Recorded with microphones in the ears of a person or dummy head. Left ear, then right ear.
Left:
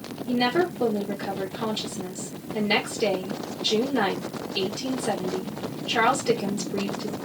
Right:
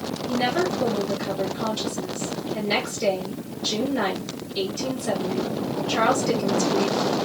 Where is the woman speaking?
45° left (ahead or behind), 1.8 m.